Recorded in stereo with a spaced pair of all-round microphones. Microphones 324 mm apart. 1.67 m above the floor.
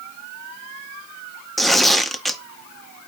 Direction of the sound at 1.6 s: Centre (ahead or behind).